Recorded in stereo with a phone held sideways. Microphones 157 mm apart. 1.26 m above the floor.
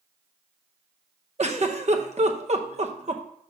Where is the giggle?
45° right (ahead or behind), 0.8 m.